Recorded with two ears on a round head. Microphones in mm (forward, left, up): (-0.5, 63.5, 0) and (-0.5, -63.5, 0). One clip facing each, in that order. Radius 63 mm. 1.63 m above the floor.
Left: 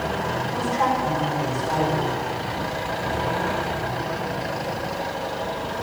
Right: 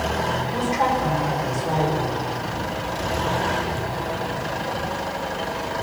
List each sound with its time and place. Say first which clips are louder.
0.5 s a woman speaking: even; 15° right (ahead or behind), 6 m